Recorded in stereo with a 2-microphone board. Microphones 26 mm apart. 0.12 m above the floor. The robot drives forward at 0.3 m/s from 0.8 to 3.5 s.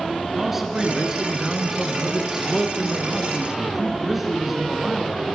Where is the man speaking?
10° right (ahead or behind), 1.3 m.